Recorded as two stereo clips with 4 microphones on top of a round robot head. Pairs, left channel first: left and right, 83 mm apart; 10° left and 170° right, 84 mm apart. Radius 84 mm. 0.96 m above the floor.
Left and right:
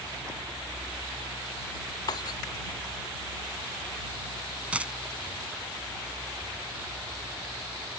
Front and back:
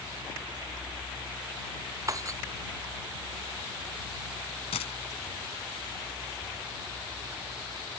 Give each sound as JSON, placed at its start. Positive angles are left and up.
{"t": 2.1, "sound": "breaking glass", "azimuth_deg": 135}
{"t": 4.7, "sound": "a dropped coin", "azimuth_deg": -15}